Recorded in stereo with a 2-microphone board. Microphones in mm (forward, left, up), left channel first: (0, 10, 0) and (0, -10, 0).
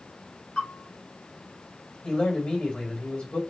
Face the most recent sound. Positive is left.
turn(degrees=70)  # may be behind; listen again after turning